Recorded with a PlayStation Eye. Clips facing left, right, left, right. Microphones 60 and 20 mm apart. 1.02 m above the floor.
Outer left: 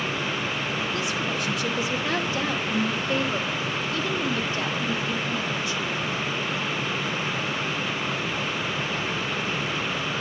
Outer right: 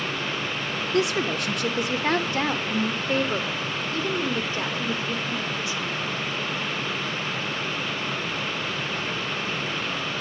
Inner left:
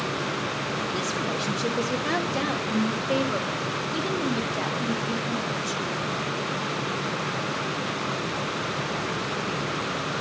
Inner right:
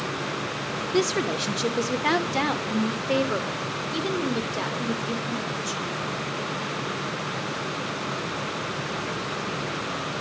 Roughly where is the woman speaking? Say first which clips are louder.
Outer right 4 dB, inner right 3 dB; right.